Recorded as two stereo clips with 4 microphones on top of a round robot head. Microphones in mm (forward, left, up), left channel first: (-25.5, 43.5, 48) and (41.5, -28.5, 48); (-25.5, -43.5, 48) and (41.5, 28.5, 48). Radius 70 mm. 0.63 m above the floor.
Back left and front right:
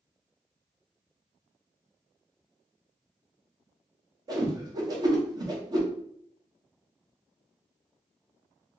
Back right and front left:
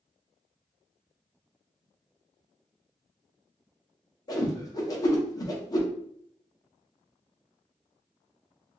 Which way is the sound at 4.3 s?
90° right.